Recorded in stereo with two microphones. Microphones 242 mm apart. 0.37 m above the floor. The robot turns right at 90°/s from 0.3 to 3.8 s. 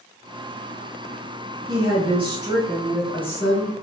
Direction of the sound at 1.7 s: 20° right (ahead or behind).